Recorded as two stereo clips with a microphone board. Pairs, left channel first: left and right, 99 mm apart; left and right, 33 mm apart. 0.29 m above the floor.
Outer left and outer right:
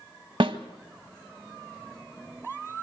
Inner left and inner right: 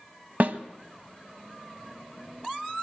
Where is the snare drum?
60° right (ahead or behind), 1.0 m.